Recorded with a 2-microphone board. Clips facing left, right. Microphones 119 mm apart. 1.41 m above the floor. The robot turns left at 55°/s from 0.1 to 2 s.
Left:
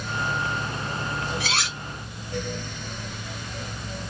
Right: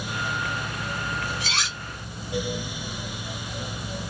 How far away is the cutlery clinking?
About 1.5 m.